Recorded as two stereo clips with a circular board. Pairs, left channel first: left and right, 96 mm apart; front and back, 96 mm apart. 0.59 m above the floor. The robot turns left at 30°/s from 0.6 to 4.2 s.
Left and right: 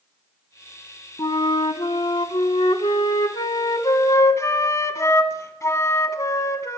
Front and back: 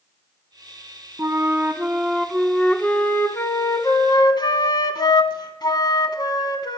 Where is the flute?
125° left, 0.9 m; by 6.8 s 35° left, 0.9 m.